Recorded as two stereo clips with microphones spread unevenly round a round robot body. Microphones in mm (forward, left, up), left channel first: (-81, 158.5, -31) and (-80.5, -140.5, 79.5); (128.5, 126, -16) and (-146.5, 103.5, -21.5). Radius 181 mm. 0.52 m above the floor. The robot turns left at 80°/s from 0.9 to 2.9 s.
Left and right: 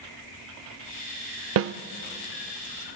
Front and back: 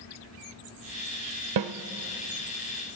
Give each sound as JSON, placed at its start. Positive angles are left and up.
{"t": 1.6, "sound": "a snare drum", "azimuth_deg": -140, "distance_m": 0.5}